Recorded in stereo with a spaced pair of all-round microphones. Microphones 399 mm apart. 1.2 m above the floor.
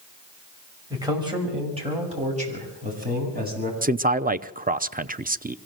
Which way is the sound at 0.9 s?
10° right (ahead or behind).